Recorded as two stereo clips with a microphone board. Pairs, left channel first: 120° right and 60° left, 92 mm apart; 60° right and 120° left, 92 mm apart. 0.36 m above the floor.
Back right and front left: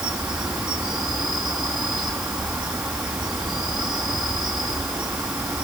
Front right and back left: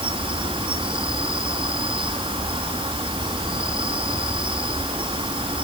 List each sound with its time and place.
0.0 s an insect: 140° left, 3.5 m